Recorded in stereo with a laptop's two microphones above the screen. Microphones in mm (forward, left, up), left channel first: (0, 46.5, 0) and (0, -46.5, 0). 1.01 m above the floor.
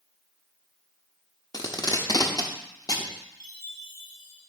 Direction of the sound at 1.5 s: 40° left (ahead or behind).